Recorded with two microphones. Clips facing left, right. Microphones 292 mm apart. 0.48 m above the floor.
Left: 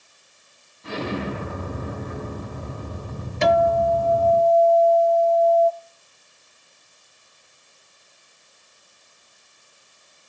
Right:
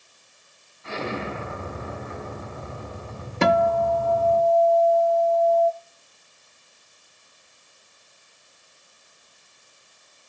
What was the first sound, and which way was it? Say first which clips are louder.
An explosion: left 3 dB; 40° left (ahead or behind).